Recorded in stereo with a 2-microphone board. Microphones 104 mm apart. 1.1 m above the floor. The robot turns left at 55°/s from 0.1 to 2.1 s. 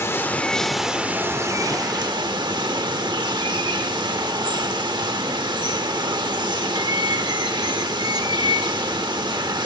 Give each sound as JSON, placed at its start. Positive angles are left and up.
{"t": 0.0, "sound": "running water", "azimuth_deg": 35, "distance_m": 0.9}